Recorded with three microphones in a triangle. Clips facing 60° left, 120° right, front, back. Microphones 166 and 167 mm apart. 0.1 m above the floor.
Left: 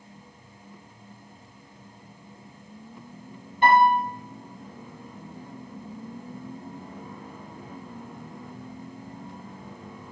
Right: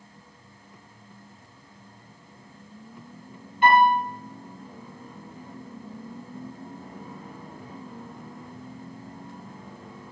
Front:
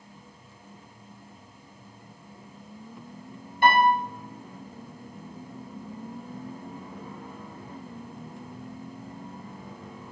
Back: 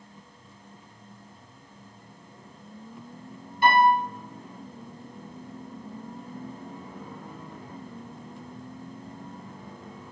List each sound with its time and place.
3.6 s a piano: 20° left, 1.2 m